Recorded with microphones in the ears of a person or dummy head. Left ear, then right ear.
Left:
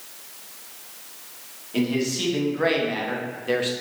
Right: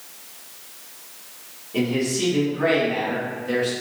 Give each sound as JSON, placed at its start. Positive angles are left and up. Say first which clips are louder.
{"t": 1.7, "sound": "a man speaking", "louder": "right 2 dB", "side_deg": 35, "distance_m": 1.6}